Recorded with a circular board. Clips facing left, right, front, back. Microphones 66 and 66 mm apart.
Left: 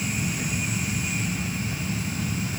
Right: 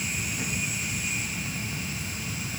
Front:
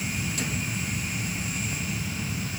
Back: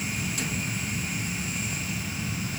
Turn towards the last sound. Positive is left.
No sound to turn to.